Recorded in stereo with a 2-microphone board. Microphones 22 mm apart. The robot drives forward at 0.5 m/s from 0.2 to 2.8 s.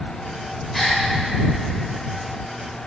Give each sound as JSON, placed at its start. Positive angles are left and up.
{"t": 0.7, "sound": "a gasp", "side_deg": -5, "distance_m": 1.9}